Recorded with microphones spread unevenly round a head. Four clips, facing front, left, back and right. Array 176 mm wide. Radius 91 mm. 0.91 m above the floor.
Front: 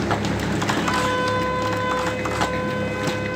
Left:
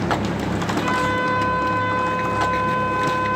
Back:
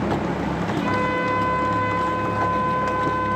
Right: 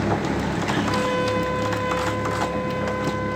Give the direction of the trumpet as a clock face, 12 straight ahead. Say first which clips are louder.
Left 2 dB, back 1 dB; 9 o'clock.